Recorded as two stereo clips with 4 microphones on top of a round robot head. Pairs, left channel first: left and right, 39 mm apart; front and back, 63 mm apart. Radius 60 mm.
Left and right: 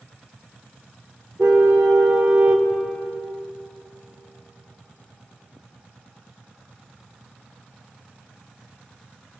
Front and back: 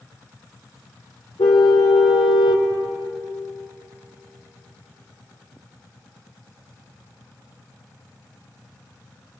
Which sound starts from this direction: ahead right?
A car horn, at 1.4 s.